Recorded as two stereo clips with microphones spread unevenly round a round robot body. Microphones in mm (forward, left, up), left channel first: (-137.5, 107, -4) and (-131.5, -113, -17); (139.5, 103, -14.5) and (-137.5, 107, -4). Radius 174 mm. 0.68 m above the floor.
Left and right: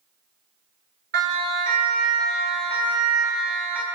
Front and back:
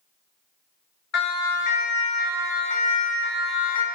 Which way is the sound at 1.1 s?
45° right.